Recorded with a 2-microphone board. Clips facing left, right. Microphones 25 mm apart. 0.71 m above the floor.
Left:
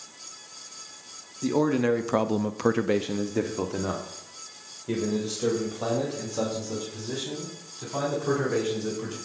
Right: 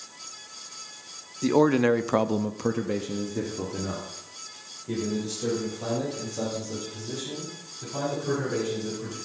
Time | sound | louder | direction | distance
1.4 | a man speaking | right 3 dB | 25° right (ahead or behind) | 1.0 m